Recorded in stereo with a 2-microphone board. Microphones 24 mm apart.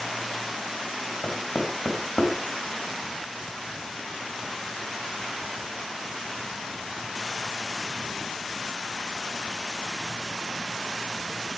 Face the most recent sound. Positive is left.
turn(degrees=55)  # may be behind; listen again after turning